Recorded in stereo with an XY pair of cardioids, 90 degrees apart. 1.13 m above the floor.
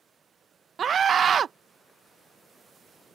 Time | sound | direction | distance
0.8 | a scream | 55° right | ?